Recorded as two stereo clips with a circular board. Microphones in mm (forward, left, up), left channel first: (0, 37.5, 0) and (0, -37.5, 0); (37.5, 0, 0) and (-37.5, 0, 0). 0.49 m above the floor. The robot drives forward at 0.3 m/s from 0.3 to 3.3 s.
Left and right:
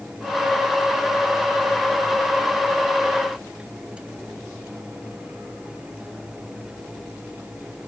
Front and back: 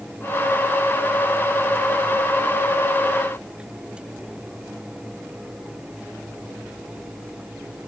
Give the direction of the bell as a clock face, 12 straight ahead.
I don't hear a bell.